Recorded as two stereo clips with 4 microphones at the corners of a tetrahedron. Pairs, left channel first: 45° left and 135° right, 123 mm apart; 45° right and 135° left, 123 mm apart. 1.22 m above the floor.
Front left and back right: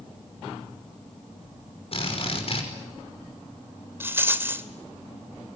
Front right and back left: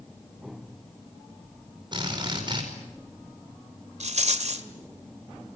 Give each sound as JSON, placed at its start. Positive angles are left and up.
{"t": 1.9, "sound": "a drill", "azimuth_deg": 80, "distance_m": 5.5}
{"t": 4.0, "sound": "a rattle", "azimuth_deg": 155, "distance_m": 1.9}